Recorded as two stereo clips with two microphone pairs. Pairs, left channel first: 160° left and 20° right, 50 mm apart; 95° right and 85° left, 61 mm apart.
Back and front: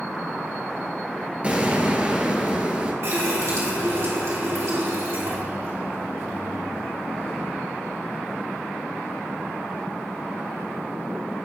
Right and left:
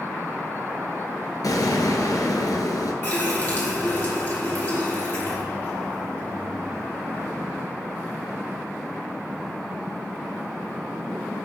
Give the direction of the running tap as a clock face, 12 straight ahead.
1 o'clock.